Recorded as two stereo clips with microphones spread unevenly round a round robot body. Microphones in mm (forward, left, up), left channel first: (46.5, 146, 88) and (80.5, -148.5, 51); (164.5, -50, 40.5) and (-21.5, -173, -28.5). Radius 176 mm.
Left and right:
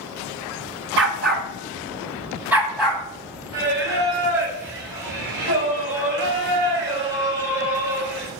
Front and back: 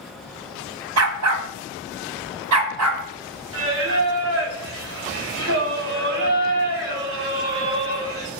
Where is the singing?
140° right, 5.5 m.